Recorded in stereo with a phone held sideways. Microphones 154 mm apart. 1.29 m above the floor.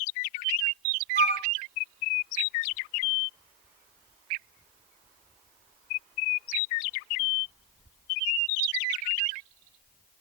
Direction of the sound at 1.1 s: 70° left (ahead or behind).